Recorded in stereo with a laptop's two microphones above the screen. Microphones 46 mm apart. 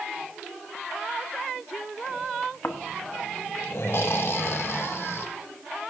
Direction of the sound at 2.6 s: 60° left (ahead or behind).